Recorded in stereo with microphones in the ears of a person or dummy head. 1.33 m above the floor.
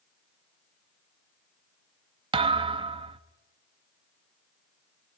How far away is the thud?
About 0.9 m.